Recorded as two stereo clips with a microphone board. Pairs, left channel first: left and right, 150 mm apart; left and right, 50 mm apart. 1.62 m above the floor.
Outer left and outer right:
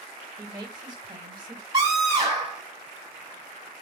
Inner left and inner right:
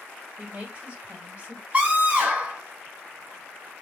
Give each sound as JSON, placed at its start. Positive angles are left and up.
{"t": 0.4, "sound": "a woman speaking", "side_deg": -30, "distance_m": 1.5}
{"t": 1.7, "sound": "a scream", "side_deg": -25, "distance_m": 1.5}